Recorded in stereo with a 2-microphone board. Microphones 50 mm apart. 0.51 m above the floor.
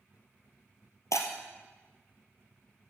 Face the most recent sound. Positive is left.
turn(degrees=75)  # may be behind; listen again after turning